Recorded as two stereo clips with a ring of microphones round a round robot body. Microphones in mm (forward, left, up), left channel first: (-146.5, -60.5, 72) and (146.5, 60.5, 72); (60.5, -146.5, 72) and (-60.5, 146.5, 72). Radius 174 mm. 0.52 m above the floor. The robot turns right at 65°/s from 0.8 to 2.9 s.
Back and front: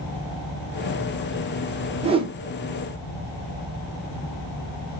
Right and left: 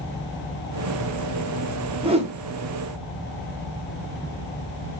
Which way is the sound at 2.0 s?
60° left.